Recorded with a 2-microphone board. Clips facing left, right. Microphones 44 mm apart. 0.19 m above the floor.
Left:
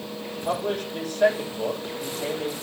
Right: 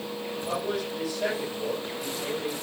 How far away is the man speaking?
About 7 m.